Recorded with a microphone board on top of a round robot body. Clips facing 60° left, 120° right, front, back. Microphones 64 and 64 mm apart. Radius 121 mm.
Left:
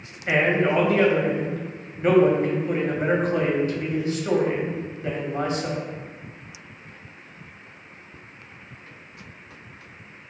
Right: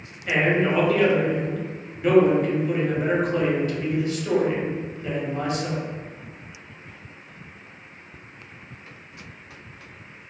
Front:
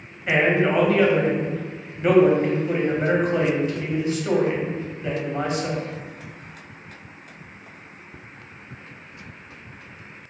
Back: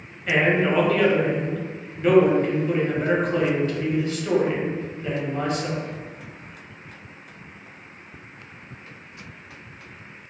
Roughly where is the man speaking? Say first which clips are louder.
Left 1 dB, front 1 dB; ahead left.